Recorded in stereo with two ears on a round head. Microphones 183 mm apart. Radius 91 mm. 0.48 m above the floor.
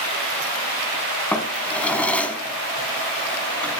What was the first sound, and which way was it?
A drawer, 5° left (ahead or behind).